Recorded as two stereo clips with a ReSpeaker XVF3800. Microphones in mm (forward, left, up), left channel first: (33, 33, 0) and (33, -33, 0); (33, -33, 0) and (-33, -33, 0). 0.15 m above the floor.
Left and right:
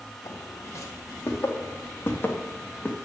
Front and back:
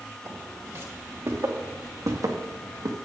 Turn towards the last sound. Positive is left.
turn(degrees=155)